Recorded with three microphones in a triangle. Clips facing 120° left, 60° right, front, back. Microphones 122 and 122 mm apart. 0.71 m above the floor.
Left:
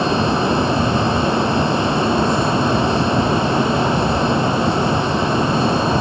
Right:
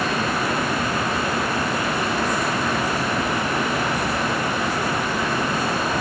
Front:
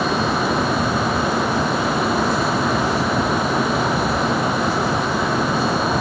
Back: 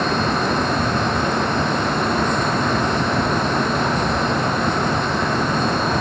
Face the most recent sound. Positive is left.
No sound to turn to.